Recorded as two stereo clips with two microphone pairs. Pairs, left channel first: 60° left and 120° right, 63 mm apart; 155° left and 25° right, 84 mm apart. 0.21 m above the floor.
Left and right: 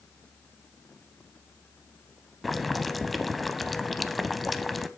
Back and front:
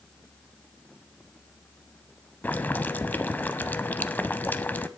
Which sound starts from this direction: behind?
Boiling, at 2.4 s.